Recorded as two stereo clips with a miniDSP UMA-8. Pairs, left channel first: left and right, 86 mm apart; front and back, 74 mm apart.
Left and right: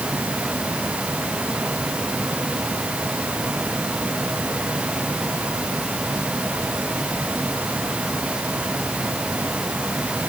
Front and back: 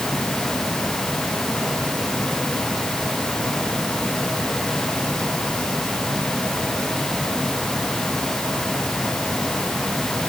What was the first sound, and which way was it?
Only background noise.